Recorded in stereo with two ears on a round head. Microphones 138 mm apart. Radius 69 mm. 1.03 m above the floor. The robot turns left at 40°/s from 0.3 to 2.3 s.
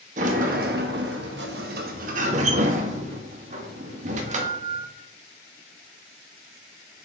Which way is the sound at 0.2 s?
50° right.